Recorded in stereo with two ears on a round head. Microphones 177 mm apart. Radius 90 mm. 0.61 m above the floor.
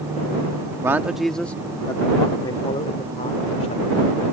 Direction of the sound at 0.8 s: 15° right (ahead or behind).